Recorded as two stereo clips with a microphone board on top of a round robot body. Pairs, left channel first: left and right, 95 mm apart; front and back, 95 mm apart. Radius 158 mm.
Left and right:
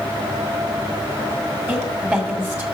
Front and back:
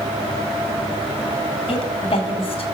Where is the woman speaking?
20° right, 2 m.